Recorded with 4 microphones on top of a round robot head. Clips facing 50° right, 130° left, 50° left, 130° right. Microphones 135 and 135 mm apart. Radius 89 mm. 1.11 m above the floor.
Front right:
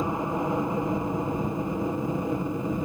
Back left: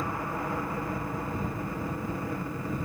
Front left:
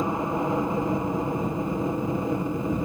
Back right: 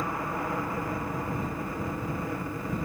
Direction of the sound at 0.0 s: Straight ahead.